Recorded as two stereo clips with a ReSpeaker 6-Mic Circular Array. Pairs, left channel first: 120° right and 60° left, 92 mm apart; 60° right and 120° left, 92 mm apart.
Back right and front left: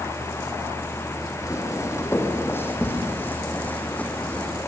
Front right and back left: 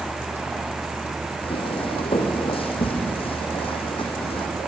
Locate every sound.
1.4 s footsteps: 65° right, 3.5 m; by 4.5 s 45° right, 4.5 m